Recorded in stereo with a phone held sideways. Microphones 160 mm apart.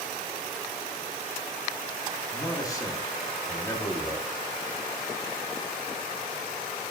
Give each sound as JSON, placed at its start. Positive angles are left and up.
{"t": 2.3, "sound": "a man speaking", "side_deg": 20, "distance_m": 1.3}